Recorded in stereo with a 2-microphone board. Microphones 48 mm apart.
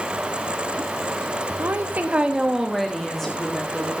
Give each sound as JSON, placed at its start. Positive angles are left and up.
{"t": 1.6, "sound": "a woman speaking", "side_deg": -55, "distance_m": 1.0}